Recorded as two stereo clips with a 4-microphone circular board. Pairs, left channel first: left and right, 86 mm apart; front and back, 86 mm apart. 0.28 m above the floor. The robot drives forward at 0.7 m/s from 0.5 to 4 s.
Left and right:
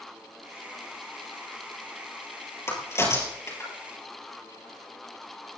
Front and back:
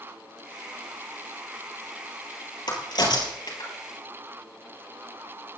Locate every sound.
2.7 s a crack: 30° left, 6.5 m; by 3.7 s 35° left, 5.5 m